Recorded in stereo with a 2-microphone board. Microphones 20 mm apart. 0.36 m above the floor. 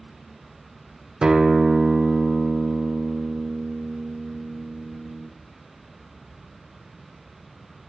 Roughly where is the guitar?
Right.